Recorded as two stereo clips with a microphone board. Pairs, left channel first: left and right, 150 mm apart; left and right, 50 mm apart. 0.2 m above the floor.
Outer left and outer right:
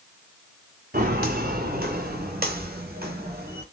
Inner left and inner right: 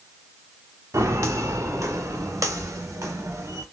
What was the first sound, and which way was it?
Footsteps, 75° right (ahead or behind).